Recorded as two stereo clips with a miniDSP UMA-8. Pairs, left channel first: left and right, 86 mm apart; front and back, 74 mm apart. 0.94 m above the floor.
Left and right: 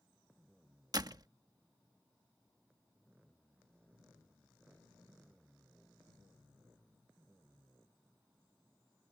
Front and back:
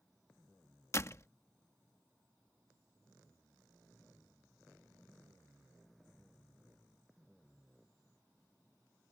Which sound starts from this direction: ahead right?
A door slam, at 0.9 s.